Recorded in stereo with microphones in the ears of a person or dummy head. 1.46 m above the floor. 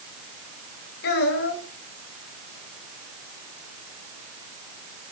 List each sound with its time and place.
1.0 s a child speaking: 70° left (ahead or behind), 4 m